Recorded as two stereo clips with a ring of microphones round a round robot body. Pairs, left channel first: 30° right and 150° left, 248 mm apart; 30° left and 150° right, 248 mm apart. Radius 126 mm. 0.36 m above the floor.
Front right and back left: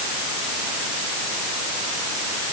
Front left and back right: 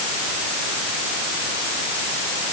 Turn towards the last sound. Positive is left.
No sound to turn to.